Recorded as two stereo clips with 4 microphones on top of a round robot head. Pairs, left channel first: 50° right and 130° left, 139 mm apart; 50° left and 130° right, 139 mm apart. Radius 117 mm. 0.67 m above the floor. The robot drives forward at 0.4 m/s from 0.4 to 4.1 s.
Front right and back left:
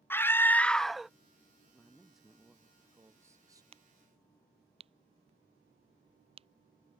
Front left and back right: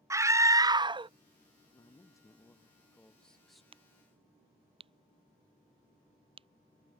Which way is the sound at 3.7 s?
Straight behind.